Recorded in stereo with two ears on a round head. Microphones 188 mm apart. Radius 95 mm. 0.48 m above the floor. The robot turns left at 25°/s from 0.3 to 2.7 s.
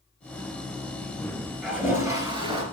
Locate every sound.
1.6 s a toilet flushing: 5° right (ahead or behind), 2.5 m; by 2.6 s 30° right (ahead or behind), 2.5 m